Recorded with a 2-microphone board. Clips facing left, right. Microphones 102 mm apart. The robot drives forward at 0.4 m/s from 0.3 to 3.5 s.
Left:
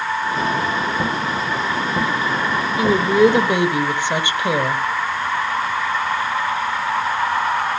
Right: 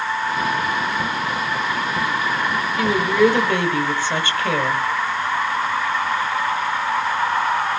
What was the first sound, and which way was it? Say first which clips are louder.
A woman speaking: left 3 dB; 20° left (ahead or behind).